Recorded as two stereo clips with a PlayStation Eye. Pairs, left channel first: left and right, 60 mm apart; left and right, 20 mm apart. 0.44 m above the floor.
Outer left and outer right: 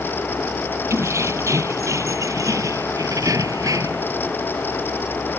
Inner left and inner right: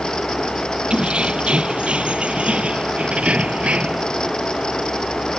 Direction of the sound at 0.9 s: 55° right (ahead or behind).